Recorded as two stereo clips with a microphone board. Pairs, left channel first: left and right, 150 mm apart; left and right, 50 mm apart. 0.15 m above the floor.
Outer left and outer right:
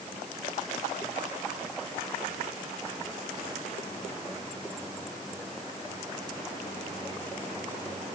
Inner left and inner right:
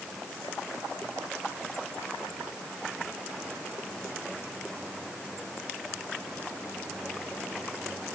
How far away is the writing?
I don't hear writing.